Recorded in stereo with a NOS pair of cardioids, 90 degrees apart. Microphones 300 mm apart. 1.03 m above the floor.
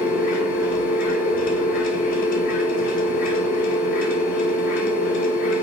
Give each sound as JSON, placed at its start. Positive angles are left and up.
{"t": 0.0, "sound": "a machine running", "azimuth_deg": 70, "distance_m": 2.5}